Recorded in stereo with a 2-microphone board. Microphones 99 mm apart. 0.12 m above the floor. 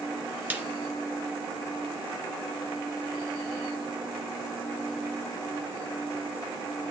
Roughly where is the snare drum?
Centre.